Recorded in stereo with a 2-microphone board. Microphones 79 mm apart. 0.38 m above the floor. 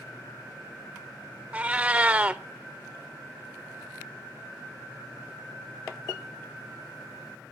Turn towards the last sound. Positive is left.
turn(degrees=-20)  # may be behind; listen again after turning